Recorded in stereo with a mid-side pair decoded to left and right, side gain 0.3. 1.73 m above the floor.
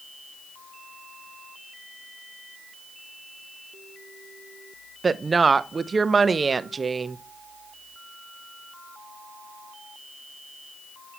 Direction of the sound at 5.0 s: 45° right.